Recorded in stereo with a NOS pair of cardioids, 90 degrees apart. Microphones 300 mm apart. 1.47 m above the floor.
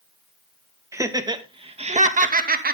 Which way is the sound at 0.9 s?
10° right.